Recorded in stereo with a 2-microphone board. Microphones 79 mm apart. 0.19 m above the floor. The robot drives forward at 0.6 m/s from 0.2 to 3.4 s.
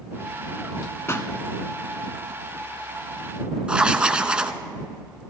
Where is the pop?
35° left (ahead or behind), 0.7 m; by 1.3 s 30° left (ahead or behind), 0.8 m.